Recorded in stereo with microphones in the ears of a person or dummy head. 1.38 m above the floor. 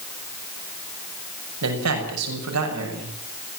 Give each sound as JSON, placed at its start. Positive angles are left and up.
{"t": 1.6, "sound": "a man speaking", "side_deg": -85, "distance_m": 6.0}